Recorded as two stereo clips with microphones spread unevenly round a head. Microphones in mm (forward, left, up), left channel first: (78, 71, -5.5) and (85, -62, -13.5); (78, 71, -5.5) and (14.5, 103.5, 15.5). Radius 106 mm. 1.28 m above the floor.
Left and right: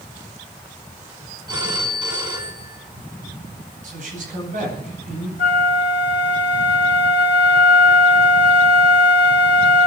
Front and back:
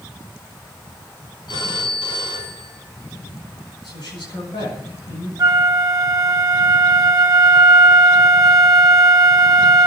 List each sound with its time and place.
1.5 s a phone ringing: 30° right, 7.5 m
3.8 s a man speaking: 65° right, 10 m
5.4 s a flute: 125° left, 1.6 m